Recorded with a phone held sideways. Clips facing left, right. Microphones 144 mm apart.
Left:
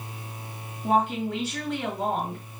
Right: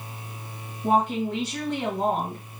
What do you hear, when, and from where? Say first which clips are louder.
0.8 s a woman speaking: right 1 dB; 35° right (ahead or behind), 1.8 m